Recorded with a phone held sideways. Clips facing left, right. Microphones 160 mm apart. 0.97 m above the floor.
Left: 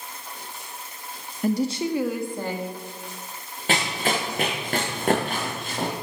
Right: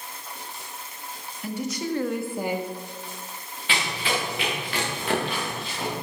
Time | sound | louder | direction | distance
1.4 | a woman speaking | left 6 dB | 45° left (ahead or behind) | 1.2 m
3.7 | running footsteps | left 3 dB | 45° left (ahead or behind) | 3.5 m